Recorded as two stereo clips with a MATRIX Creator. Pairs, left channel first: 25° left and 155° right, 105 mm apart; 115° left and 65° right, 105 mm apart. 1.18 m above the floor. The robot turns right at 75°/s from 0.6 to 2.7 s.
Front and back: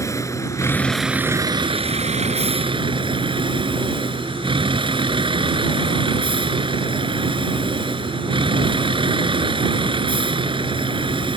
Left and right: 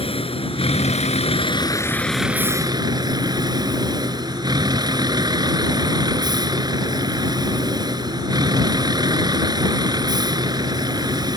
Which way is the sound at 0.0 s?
85° left.